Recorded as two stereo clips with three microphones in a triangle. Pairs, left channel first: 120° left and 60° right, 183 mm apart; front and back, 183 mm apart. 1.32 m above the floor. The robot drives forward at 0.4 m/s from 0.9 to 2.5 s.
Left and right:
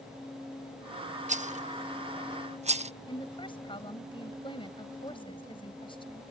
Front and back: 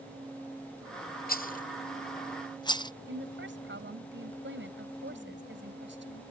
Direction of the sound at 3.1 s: 175° right.